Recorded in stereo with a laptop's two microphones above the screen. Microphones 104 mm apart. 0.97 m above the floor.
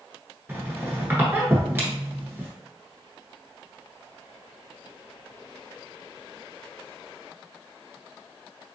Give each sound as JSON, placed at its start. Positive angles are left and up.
{"t": 0.5, "sound": "a squeak", "side_deg": -20, "distance_m": 1.0}